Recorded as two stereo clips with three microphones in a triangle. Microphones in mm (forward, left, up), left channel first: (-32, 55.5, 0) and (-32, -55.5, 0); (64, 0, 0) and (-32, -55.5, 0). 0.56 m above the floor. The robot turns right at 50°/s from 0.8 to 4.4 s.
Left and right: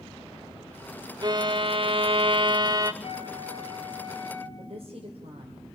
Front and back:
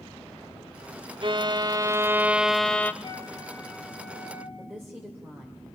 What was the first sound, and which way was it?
A violin, 130° right.